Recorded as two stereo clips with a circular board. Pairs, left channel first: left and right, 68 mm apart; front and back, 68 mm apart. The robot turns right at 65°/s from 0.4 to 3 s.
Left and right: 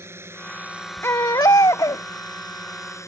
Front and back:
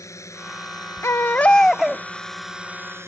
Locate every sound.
0.0 s a drone: 40° right; by 3.1 s 130° left
1.0 s a baby crying: 40° left; by 2.0 s 110° left